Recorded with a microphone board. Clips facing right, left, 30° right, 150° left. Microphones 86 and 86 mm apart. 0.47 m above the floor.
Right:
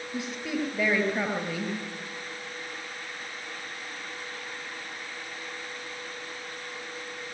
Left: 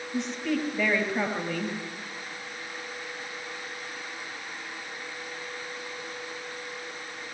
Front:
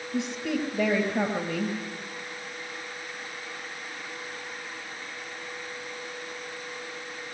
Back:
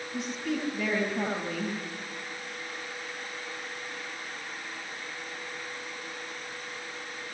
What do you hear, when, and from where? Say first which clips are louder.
0.1 s a woman speaking: left 3 dB, front 3 dB; 10° right, 8.5 m